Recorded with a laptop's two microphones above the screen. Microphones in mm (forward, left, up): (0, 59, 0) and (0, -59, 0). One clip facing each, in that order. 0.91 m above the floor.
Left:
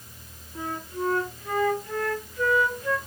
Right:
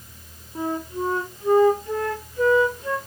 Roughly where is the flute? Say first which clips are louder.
Right 5 dB; right.